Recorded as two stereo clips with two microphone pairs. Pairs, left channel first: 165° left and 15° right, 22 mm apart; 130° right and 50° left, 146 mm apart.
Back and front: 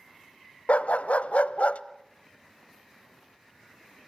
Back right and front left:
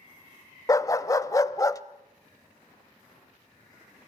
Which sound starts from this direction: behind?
A dog barking, at 0.7 s.